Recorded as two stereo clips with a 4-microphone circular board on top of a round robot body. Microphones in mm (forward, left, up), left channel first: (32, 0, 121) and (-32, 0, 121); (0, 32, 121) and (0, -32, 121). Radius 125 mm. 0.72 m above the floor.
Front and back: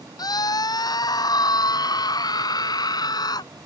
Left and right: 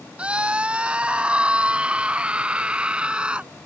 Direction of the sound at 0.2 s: 15° right.